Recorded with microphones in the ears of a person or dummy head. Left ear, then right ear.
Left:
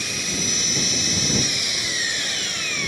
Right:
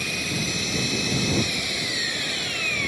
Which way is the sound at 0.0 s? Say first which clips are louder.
Left 2 dB; 15° left (ahead or behind).